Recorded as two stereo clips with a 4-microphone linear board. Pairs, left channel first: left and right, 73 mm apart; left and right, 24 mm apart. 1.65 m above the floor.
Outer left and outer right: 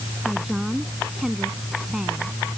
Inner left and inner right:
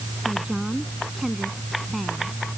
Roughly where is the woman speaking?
Centre.